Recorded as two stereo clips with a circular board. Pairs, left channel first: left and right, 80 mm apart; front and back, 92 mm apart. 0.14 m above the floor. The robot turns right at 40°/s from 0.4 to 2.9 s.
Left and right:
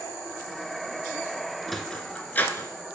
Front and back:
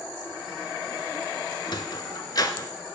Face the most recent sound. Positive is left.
turn(degrees=50)